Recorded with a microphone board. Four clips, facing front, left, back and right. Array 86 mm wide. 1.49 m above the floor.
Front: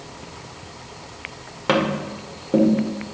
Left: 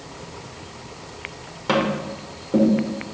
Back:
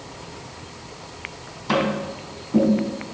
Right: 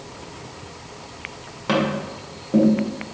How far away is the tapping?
About 1.2 m.